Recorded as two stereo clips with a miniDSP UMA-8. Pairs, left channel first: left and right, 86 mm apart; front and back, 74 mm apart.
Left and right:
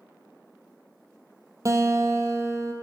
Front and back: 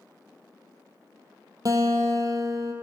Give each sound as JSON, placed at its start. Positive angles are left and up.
{"t": 1.6, "sound": "a guitar", "azimuth_deg": -140, "distance_m": 0.7}